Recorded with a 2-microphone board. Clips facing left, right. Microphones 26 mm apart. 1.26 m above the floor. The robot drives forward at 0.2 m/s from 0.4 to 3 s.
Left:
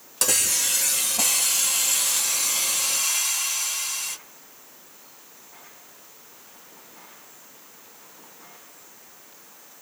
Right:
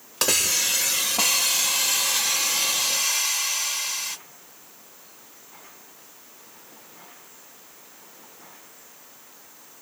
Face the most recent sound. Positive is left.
turn(degrees=-30)  # may be behind; listen again after turning